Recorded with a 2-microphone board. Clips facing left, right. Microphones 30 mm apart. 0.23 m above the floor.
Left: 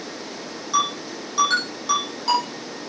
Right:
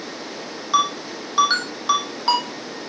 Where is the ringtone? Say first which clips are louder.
Right 3 dB; 25° right (ahead or behind), 4.5 m.